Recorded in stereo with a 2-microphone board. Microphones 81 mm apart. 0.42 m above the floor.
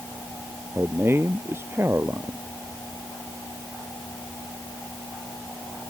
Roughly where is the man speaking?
Right.